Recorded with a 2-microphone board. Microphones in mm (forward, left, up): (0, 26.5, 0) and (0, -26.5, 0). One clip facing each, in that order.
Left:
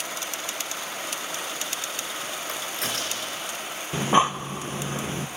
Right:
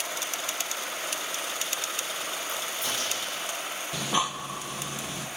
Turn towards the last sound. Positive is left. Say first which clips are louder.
# left 8 dB
turn(degrees=35)  # may be behind; listen again after turning